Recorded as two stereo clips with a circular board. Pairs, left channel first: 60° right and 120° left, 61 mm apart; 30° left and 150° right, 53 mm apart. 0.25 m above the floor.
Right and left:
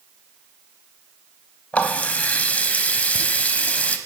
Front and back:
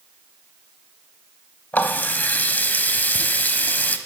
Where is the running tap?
5° right, 0.7 m.